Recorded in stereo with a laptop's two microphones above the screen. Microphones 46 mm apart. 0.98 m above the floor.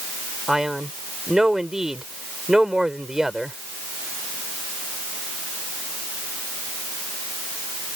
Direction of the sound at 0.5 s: 10° right (ahead or behind).